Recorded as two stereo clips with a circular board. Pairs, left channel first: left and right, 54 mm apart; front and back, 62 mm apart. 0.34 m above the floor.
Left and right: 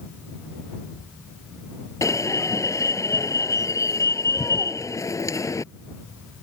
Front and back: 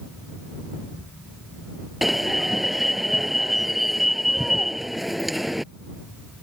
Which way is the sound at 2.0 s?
90° left.